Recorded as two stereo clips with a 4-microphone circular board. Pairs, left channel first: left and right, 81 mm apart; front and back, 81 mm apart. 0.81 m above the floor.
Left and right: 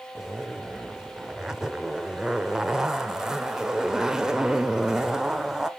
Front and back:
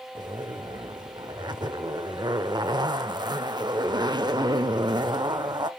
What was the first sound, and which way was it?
A zipper, 170° right.